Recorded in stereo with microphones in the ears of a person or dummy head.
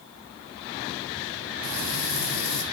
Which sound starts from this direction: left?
Frying, at 1.6 s.